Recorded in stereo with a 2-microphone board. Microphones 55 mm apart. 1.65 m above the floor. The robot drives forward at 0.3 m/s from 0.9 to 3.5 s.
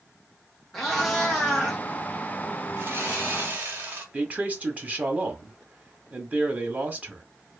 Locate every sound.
0.7 s a cat meowing: 5° left (ahead or behind), 0.8 m; by 1.8 s centre (ahead or behind), 1.0 m
2.8 s sawing: 45° right (ahead or behind), 0.7 m; by 4.0 s 35° right (ahead or behind), 0.8 m
4.1 s a man speaking: 30° right (ahead or behind), 0.6 m